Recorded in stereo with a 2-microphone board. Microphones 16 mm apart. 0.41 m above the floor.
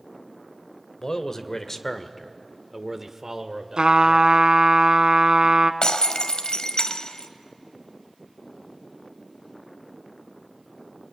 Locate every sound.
1.0 s a man speaking: 40° left (ahead or behind), 1.7 m; by 4.4 s 55° right (ahead or behind), 1.9 m
3.8 s a trumpet: 80° right, 1.2 m
5.8 s breaking glass: 65° left (ahead or behind), 1.4 m